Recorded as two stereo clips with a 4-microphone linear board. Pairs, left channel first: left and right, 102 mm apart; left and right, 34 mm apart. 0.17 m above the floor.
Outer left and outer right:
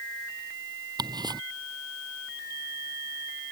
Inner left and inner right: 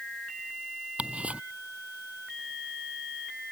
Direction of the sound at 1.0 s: 45° right (ahead or behind).